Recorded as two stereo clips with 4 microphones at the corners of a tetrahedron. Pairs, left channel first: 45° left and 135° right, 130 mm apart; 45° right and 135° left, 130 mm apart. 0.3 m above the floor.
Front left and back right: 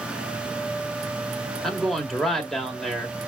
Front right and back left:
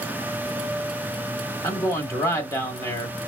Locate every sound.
1.6 s a man speaking: 40° right, 1.6 m